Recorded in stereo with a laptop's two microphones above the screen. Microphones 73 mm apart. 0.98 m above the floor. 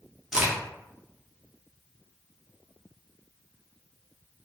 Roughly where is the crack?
Centre.